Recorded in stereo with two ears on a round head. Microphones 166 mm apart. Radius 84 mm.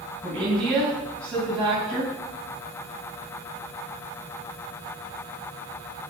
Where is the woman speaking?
5° left (ahead or behind), 4.5 m.